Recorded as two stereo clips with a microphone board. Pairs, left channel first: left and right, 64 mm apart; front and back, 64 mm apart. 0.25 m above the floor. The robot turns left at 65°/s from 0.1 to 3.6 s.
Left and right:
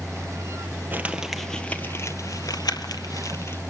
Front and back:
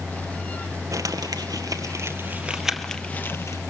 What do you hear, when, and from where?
0.9 s crumpling: 150° right, 1.6 m; by 3.6 s 35° left, 1.6 m